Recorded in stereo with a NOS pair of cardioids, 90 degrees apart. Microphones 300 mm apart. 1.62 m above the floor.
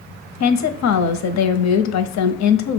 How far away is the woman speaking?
About 0.7 m.